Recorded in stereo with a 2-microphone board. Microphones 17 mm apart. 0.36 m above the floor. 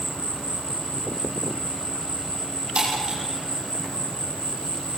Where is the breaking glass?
65° right (ahead or behind), 10 m.